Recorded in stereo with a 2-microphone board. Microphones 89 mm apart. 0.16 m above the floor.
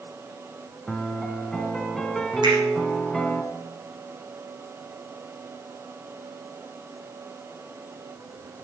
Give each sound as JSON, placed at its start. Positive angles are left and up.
{"t": 0.9, "sound": "a piano", "side_deg": 5, "distance_m": 1.2}
{"t": 2.4, "sound": "a finger snap", "side_deg": -55, "distance_m": 7.5}